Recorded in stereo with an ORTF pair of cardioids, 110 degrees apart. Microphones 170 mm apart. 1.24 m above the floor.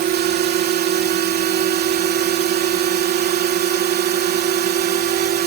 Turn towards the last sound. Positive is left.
turn(degrees=-65)